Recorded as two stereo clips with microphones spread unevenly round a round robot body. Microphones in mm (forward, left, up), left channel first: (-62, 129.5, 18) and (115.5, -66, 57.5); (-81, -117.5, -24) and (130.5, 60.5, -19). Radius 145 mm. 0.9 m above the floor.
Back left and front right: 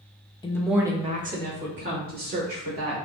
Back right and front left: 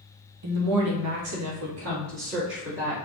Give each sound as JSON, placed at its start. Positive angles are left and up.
{"t": 0.4, "sound": "a woman speaking", "azimuth_deg": 70, "distance_m": 0.9}